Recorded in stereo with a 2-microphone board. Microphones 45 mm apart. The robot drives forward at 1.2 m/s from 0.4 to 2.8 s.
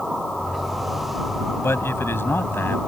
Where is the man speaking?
60° left (ahead or behind); by 2.8 s 50° left (ahead or behind).